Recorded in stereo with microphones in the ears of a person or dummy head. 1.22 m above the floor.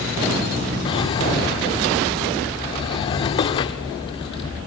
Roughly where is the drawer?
Left.